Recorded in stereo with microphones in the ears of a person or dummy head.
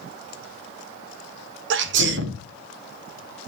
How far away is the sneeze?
About 0.9 m.